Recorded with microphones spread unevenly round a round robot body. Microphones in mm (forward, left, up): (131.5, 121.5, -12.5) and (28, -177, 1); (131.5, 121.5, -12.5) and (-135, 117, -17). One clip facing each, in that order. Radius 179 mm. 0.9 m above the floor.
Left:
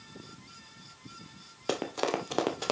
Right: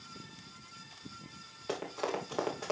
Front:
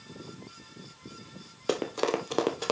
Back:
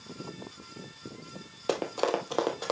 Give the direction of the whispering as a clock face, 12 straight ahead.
No whispering in this recording.